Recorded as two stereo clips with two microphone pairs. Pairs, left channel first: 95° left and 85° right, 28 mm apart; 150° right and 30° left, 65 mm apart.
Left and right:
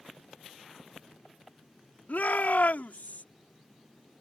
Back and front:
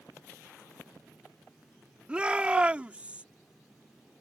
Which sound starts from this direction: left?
A shout, at 2.1 s.